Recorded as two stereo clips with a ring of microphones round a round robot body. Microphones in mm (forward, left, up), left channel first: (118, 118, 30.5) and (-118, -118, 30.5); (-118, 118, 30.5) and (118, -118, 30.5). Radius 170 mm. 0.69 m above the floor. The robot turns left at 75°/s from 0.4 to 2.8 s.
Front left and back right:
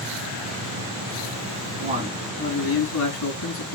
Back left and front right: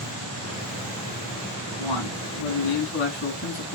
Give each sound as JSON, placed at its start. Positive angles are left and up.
{"t": 1.8, "sound": "a man speaking", "azimuth_deg": 165, "distance_m": 6.0}